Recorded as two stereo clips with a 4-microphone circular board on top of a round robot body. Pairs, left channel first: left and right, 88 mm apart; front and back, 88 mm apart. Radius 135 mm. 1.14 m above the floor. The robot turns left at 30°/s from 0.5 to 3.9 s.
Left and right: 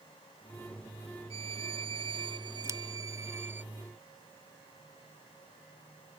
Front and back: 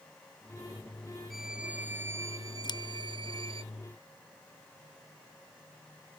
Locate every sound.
1.3 s a violin: 90° right; by 3.6 s 160° right
2.6 s scissors: 30° right; by 2.8 s 35° right